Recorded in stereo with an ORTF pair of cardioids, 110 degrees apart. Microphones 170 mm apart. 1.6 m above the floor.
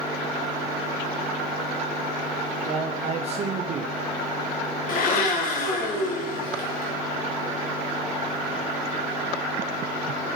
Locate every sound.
2.6 s a man speaking: 40° right, 0.7 m
4.9 s a blender: 60° left, 1.7 m